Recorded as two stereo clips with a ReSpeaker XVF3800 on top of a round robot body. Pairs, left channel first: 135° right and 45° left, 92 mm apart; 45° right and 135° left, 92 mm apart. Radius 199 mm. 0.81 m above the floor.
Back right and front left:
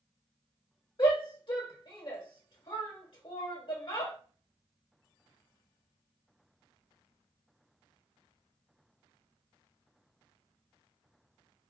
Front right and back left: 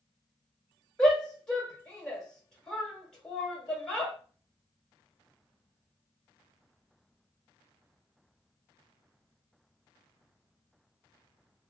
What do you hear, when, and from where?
1.0 s a shout: 125° right, 1.7 m